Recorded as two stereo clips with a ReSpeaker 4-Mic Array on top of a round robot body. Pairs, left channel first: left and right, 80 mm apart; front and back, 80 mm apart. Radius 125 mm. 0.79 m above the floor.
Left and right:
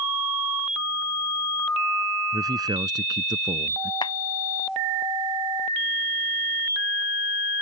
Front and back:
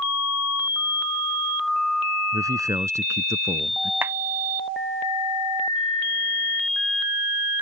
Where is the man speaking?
130° right; by 3.9 s 120° right.